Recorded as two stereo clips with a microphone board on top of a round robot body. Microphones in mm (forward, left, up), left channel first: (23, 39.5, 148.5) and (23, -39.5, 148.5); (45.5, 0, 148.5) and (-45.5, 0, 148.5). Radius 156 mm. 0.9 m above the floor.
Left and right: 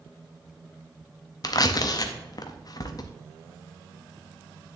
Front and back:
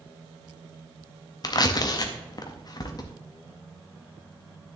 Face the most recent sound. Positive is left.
turn(degrees=50)